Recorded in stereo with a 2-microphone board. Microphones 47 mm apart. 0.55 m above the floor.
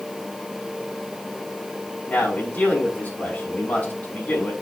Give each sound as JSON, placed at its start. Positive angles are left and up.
{"t": 2.1, "sound": "a man speaking", "side_deg": 40, "distance_m": 4.5}